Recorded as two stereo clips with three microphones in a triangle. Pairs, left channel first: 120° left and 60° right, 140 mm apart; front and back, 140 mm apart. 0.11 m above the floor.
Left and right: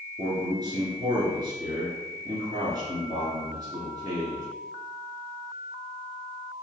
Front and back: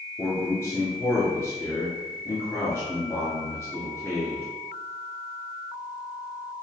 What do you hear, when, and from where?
0.2 s a man speaking: 55° right, 1.4 m